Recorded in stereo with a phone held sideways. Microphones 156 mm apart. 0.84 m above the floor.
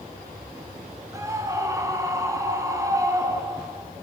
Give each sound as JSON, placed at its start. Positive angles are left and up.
{"t": 1.1, "sound": "a scream", "side_deg": -20, "distance_m": 9.0}